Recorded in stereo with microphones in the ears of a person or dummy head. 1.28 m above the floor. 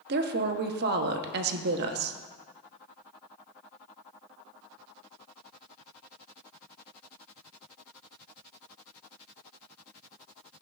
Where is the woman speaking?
50° right (ahead or behind), 0.7 m.